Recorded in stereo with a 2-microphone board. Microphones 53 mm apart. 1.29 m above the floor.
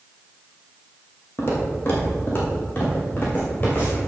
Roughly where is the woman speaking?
No woman speaking in this recording.